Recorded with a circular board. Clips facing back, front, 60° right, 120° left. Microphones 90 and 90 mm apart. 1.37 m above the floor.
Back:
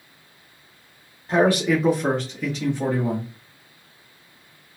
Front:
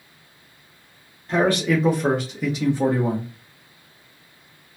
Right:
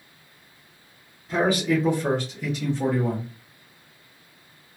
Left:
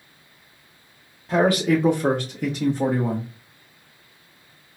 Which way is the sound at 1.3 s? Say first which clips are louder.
Back 1 dB, left 3 dB; 110° left.